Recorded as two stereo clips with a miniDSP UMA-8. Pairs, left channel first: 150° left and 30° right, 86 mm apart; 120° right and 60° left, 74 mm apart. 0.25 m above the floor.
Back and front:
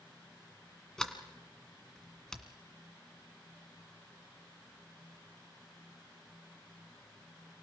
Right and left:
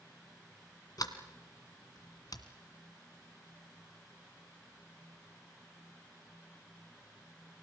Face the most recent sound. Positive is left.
turn(degrees=-130)